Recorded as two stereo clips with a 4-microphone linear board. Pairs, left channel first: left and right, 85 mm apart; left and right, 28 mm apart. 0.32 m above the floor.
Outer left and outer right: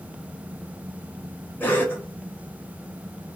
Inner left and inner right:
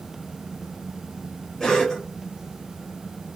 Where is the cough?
25° left (ahead or behind), 1.4 m.